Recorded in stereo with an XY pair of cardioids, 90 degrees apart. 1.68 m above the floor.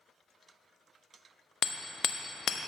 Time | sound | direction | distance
1.6 | hammering | 70° left | 0.8 m